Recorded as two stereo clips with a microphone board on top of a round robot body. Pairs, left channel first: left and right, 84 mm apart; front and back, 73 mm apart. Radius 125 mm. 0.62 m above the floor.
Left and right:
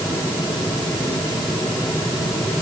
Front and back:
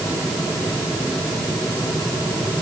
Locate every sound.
Only background noise.